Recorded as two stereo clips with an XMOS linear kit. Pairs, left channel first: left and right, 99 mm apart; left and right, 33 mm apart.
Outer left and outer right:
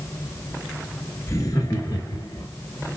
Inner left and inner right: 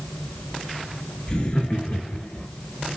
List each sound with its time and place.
1.3 s laughter: 30° left (ahead or behind), 1.3 m; by 2.5 s 45° left (ahead or behind), 1.7 m